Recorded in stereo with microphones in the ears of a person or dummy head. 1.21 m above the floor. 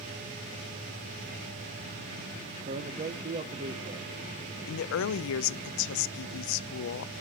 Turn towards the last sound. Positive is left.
turn(degrees=70)  # may be behind; listen again after turning